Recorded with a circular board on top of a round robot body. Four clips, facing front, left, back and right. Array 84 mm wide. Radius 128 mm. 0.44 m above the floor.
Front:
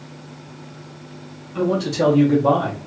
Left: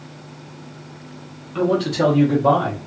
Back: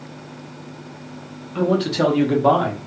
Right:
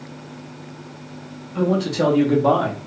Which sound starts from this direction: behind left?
A man speaking, at 1.6 s.